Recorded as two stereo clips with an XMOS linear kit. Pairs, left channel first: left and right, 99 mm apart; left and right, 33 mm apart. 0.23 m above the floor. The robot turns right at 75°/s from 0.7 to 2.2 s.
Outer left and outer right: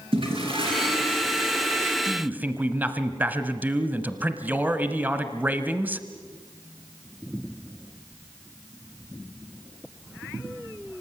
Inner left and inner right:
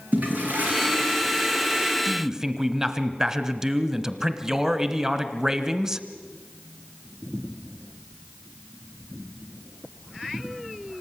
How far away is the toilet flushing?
About 5 m.